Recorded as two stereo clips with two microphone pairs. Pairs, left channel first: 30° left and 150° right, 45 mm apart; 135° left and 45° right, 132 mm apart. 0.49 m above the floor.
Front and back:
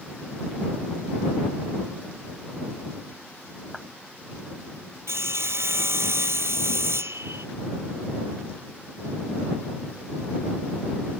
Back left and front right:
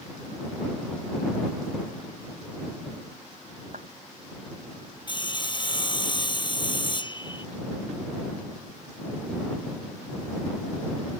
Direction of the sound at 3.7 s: 60° right.